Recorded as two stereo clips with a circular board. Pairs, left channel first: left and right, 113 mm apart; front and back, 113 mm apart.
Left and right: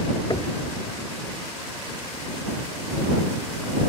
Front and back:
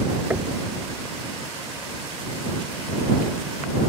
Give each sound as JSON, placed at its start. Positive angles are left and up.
{"t": 0.3, "sound": "knocking", "azimuth_deg": 115}